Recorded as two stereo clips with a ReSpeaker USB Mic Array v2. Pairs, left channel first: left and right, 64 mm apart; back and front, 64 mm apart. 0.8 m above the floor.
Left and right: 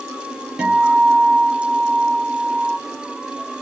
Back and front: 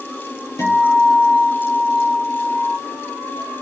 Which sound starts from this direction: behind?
A guitar, at 0.6 s.